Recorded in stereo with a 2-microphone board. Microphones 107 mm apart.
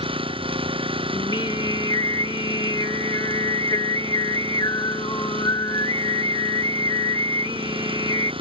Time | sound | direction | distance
0.0 | an engine running | 55° right (ahead or behind) | ?
1.1 | singing | 40° left (ahead or behind) | ?